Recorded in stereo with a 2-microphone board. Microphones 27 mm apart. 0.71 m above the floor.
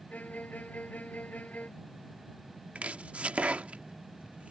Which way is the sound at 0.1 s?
85° left.